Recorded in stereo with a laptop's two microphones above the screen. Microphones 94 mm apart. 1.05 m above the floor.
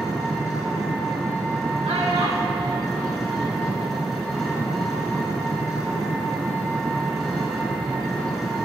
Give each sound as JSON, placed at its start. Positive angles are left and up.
{"t": 0.0, "sound": "an engine running", "side_deg": 0, "distance_m": 2.5}
{"t": 1.9, "sound": "a child speaking", "side_deg": -80, "distance_m": 1.4}